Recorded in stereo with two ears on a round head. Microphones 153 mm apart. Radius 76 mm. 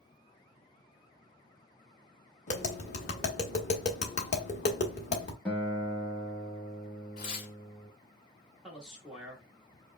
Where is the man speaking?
5° right (ahead or behind), 1.1 m.